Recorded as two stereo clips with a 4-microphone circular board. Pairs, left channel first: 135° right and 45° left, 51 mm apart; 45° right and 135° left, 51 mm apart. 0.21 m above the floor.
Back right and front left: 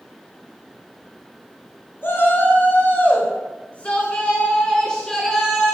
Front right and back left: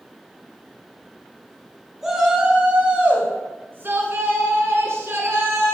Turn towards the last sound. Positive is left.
turn(degrees=145)